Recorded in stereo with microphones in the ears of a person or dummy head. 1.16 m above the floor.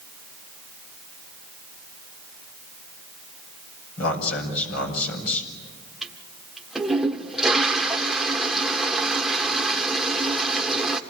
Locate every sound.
4.0 s a man speaking: 80° left, 5 m
6.0 s a toilet flushing: centre (ahead or behind), 1.2 m